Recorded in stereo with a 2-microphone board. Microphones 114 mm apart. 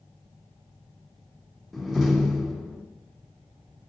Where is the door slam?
Centre (ahead or behind), 1.1 m.